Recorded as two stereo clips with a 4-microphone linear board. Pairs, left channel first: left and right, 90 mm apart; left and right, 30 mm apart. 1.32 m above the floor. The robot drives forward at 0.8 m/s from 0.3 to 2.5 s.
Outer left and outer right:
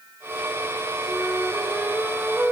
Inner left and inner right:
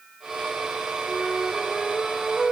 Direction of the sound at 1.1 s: 20° right (ahead or behind).